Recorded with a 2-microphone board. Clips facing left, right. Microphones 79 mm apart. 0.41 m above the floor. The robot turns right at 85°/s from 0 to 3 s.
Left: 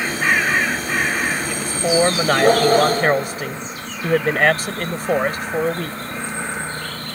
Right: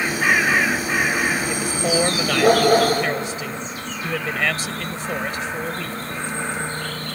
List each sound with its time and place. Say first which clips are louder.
1.5 s a man speaking: left 2 dB; 20° right; by 6.0 s 110° left